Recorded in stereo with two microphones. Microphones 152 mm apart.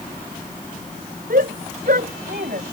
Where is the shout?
70° right (ahead or behind).